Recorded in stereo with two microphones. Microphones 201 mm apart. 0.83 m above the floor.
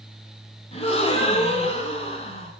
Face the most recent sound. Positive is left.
turn(degrees=30)  # may be behind; listen again after turning